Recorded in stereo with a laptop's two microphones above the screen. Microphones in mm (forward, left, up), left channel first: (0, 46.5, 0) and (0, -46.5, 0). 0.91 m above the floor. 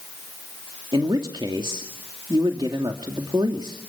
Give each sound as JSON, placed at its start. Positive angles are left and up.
{"t": 0.9, "sound": "a man speaking", "side_deg": -55, "distance_m": 2.0}